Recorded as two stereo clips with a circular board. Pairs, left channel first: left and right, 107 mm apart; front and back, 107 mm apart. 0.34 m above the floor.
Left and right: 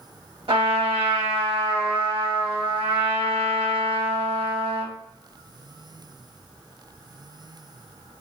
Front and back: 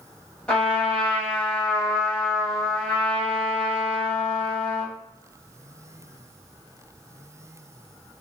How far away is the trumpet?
About 1.4 m.